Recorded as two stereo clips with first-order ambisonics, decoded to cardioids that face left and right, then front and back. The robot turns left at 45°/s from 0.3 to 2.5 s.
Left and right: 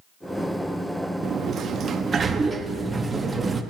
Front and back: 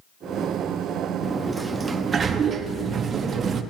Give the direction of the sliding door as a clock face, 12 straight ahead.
3 o'clock.